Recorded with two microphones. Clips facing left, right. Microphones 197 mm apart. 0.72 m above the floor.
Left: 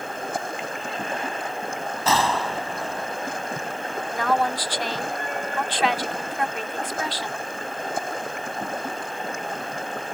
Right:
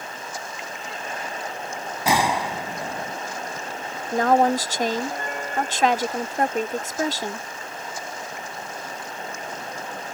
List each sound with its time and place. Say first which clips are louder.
0.0 s running water: left 6 dB; 55° left (ahead or behind)
2.0 s a gunshot: right 1 dB; 15° right (ahead or behind)
4.1 s a woman speaking: right 6 dB; 45° right (ahead or behind)